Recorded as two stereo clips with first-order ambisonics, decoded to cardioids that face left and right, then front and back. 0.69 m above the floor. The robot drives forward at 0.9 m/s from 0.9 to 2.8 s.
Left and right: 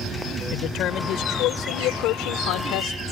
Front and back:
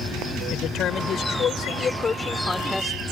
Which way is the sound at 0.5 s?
50° left.